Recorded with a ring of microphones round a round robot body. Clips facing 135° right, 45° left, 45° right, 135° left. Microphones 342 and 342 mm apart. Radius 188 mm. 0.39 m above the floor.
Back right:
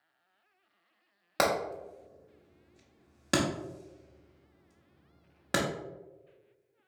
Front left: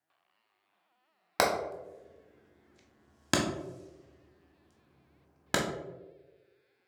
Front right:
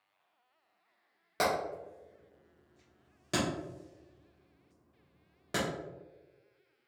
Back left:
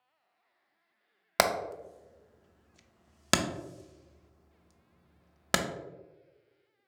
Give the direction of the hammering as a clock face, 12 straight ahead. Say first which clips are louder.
Even, back left 2 dB; 8 o'clock.